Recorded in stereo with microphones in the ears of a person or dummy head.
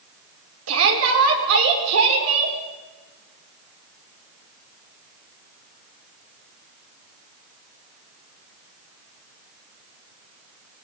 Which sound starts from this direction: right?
A shout, at 0.7 s.